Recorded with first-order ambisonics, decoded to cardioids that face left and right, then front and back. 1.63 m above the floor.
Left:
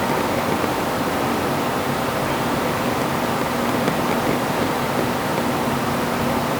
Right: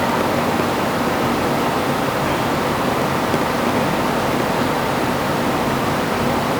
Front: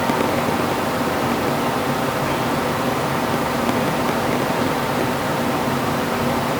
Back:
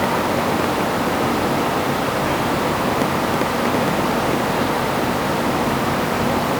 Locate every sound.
Only background noise.